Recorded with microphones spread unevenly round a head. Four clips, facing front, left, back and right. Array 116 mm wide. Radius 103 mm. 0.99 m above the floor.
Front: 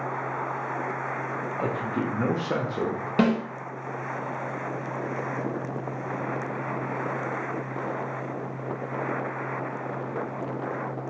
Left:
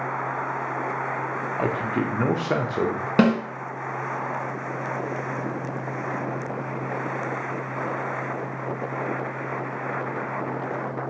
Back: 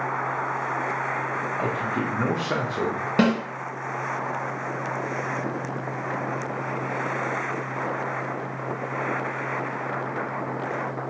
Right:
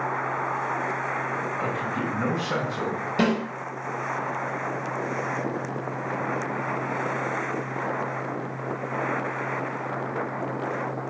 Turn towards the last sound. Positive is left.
turn(degrees=115)